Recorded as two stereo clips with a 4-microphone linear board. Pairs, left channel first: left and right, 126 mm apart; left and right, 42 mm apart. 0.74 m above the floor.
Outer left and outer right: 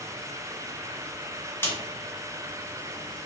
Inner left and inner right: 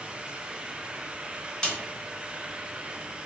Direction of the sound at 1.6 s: 20° left (ahead or behind).